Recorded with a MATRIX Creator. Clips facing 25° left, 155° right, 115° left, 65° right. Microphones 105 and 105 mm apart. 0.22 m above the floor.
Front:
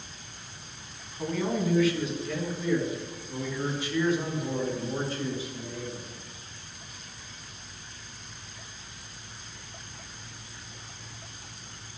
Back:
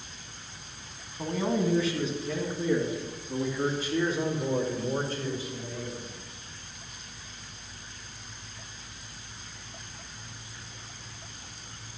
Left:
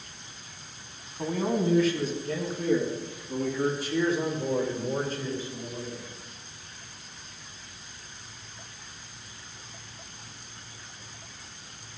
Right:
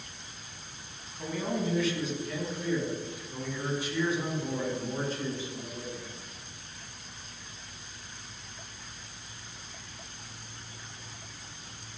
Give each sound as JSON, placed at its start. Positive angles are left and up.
{"t": 1.2, "sound": "a man speaking", "azimuth_deg": 140, "distance_m": 1.8}